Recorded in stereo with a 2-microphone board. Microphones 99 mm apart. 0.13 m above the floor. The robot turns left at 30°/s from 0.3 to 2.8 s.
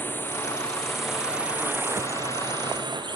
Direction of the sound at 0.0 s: 20° left.